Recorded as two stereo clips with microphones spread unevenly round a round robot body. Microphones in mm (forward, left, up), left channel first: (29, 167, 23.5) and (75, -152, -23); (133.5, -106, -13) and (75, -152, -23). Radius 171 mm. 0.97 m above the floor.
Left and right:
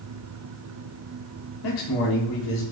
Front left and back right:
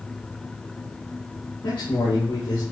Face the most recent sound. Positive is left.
turn(degrees=90)